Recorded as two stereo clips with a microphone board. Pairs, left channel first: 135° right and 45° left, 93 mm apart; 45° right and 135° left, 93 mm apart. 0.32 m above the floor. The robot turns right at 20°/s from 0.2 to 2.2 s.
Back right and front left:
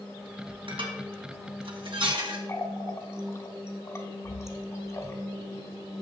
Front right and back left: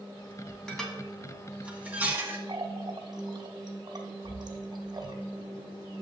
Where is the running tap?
170° left, 1.1 m.